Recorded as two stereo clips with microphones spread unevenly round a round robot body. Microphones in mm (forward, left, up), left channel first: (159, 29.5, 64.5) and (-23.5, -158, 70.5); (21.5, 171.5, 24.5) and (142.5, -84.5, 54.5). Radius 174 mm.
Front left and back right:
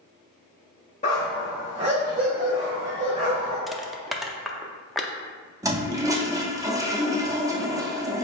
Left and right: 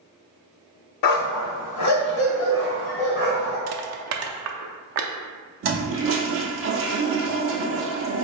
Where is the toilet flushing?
60° right, 0.9 m.